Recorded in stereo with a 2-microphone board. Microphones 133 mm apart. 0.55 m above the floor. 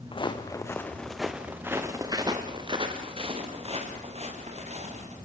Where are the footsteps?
40° left (ahead or behind), 2 m; by 5.2 s 55° right (ahead or behind), 6 m.